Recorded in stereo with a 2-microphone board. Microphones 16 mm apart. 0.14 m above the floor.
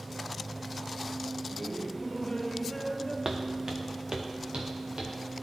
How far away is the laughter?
About 2.0 m.